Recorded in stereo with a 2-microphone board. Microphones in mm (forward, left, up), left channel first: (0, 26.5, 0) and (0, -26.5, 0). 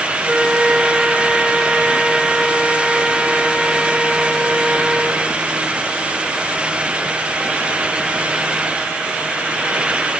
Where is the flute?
15° right (ahead or behind), 1.3 m.